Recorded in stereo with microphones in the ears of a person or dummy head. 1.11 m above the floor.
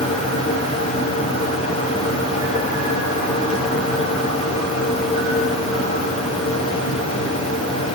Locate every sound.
0.0 s a fan: 45° left (ahead or behind), 9 m